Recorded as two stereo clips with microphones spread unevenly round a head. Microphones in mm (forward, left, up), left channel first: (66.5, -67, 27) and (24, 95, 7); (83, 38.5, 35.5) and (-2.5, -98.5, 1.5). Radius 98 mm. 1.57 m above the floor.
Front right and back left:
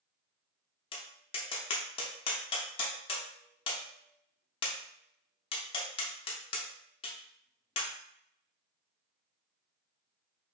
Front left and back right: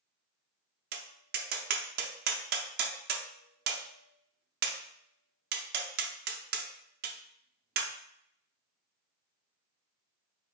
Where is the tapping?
140° right, 0.6 m.